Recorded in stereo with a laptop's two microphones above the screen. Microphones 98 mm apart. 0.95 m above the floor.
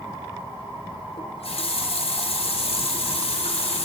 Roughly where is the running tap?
Left.